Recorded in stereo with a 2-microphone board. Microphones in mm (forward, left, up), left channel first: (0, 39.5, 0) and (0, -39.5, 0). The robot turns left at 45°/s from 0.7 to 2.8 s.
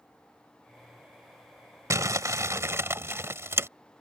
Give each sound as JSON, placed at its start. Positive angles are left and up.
{"t": 1.9, "sound": "crumpling", "azimuth_deg": -85}